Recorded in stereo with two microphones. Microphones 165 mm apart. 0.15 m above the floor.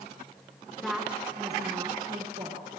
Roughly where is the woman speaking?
Centre.